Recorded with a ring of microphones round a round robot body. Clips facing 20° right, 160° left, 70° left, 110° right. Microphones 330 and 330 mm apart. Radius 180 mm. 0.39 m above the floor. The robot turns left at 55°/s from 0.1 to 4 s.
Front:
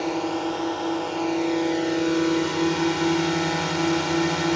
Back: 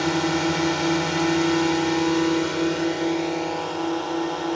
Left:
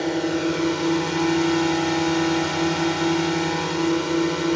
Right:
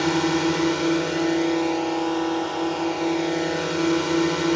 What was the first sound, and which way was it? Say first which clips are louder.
A drone: back 3 dB, right 1 dB; 170° right.